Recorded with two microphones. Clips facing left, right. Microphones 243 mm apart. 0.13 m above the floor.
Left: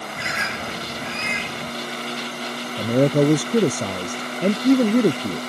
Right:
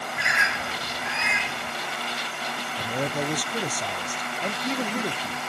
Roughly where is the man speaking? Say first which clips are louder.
Left 13 dB; left.